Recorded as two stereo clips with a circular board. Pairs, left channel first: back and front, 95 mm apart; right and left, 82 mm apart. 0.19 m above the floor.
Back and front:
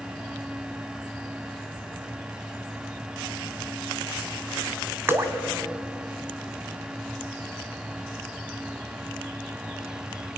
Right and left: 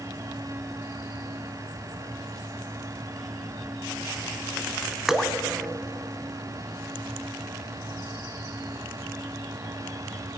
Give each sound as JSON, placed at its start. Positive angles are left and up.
{"t": 5.1, "sound": "dripping", "azimuth_deg": 10, "distance_m": 1.5}